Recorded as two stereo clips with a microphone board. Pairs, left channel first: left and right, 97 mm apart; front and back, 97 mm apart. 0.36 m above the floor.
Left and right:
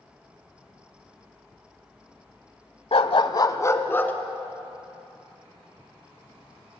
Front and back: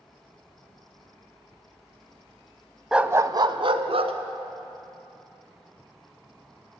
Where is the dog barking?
95° left, 0.8 m; by 4.1 s 160° left, 1.7 m.